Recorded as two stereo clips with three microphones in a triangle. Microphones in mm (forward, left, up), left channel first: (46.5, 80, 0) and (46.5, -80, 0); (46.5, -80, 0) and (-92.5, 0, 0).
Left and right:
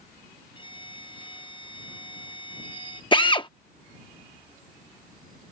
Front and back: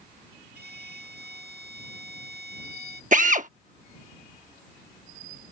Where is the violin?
150° left.